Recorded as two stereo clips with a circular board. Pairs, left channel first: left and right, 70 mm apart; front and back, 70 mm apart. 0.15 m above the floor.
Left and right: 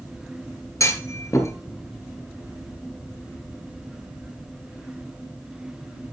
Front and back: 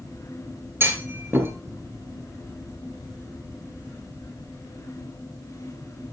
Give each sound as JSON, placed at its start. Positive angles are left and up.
{"t": 0.8, "sound": "a clunk", "azimuth_deg": 130, "distance_m": 3.0}